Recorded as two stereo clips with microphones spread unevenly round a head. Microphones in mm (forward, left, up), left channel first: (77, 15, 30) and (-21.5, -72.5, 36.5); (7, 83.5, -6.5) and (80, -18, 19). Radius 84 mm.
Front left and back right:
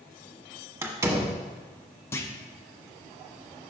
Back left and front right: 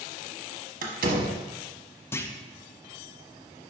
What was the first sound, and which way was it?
A door slam, 70° right.